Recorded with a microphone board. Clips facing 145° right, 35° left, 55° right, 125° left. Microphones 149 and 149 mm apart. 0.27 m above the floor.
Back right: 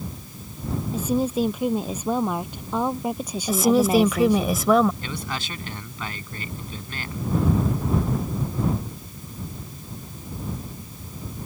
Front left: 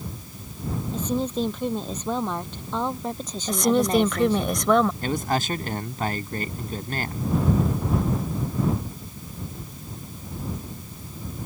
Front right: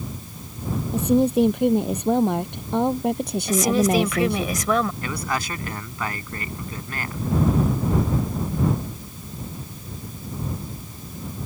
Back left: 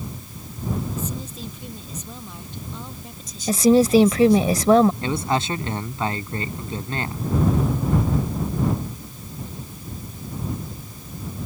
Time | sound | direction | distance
0.9 | a woman speaking | 65° right | ?
3.5 | a woman speaking | 130° left | ?
5.0 | a man speaking | 65° left | ?